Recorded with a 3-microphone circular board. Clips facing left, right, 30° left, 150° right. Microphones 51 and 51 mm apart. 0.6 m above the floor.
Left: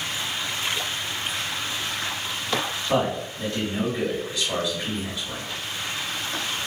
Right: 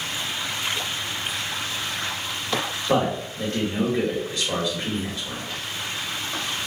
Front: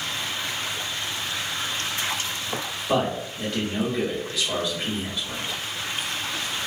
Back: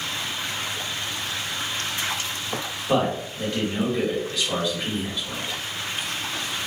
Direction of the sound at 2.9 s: 60° right.